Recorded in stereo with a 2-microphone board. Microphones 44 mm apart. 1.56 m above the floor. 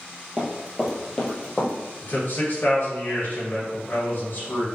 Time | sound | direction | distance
0.4 | running footsteps | 20° right (ahead or behind) | 1.6 m
2.0 | a man speaking | 50° left (ahead or behind) | 1.7 m